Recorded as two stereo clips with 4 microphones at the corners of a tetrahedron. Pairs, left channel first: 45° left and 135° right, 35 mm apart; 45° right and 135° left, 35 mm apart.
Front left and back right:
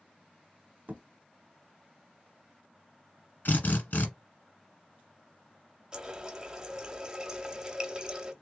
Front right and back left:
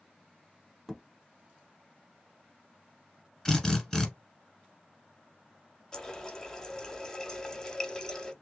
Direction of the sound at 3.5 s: 30° left.